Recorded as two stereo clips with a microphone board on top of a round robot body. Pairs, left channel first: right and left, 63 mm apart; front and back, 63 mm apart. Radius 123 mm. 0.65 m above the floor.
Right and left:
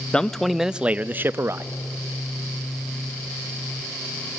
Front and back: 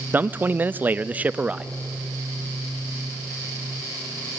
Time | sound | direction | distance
0.1 | a man speaking | 150° right | 0.7 m